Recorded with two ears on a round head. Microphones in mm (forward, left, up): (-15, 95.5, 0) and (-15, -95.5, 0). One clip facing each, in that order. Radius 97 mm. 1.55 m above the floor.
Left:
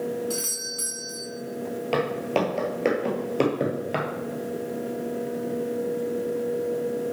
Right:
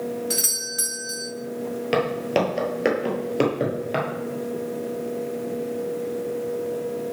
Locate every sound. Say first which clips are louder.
0.3 s a doorbell: right 1 dB; 20° right (ahead or behind), 1.0 m
1.9 s footsteps: right 3 dB; 20° right (ahead or behind), 1.7 m; by 4.1 s 5° left (ahead or behind), 1.7 m